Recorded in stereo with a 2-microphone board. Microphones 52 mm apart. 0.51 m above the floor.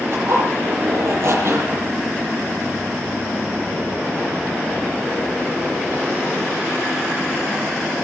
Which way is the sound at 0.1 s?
55° right (ahead or behind).